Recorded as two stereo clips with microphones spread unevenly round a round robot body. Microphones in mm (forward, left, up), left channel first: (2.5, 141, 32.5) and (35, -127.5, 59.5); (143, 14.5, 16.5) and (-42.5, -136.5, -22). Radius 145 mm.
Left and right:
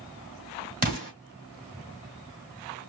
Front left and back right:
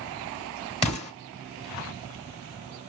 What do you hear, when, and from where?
0.8 s an explosion: 25° right, 2.5 m